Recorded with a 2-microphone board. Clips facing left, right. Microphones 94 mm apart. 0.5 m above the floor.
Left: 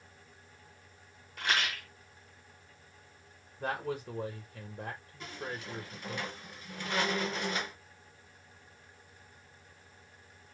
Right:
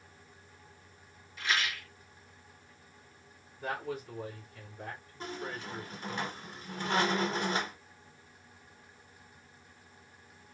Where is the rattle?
60° left (ahead or behind), 1.2 m.